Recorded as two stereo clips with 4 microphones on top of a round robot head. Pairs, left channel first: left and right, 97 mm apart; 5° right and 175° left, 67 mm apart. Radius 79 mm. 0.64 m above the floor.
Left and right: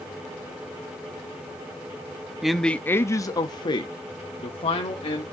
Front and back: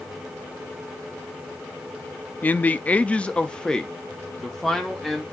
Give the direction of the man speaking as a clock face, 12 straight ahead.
12 o'clock.